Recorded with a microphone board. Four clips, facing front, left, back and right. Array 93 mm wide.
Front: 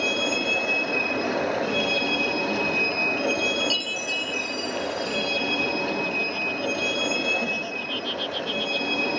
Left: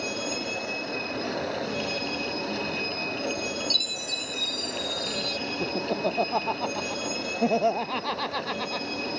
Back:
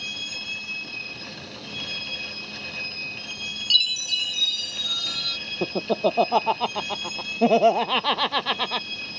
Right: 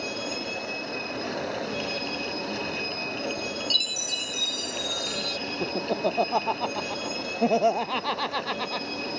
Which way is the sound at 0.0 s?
5° left.